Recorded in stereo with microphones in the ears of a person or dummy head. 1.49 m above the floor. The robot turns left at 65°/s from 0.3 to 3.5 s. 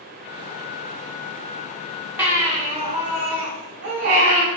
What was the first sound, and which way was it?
A baby crying, 10° right.